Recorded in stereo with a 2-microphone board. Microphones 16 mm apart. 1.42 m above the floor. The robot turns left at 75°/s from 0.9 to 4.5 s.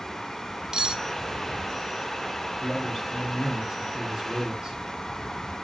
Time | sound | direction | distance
0.7 | cutlery clinking | 45° right (ahead or behind) | 0.8 m
2.6 | a man speaking | 55° left | 3.5 m